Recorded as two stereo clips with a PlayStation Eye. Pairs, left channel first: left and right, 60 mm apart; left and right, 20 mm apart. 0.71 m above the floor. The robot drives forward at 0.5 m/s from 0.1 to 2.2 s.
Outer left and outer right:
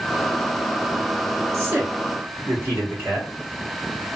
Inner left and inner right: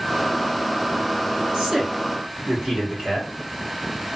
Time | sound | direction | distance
1.5 | a man speaking | 45° right (ahead or behind) | 1.2 m